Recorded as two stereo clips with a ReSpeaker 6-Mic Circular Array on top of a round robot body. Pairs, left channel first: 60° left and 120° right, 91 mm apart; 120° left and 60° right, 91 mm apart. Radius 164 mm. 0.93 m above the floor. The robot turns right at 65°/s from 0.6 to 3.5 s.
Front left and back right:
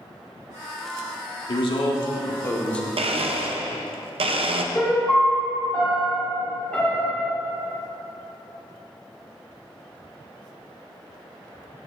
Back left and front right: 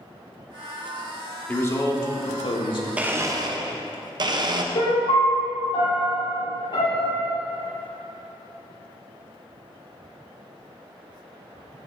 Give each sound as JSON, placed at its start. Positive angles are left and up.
{"t": 1.5, "sound": "a man speaking", "azimuth_deg": 55, "distance_m": 1.9}
{"t": 3.0, "sound": "a blender", "azimuth_deg": -135, "distance_m": 0.7}
{"t": 4.7, "sound": "a piano", "azimuth_deg": 135, "distance_m": 3.0}